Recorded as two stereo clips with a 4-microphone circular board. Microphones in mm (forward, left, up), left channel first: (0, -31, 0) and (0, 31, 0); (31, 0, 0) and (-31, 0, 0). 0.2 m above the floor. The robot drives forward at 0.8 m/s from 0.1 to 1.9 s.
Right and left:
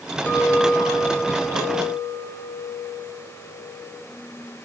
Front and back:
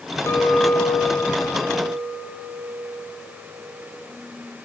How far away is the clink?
About 1.9 m.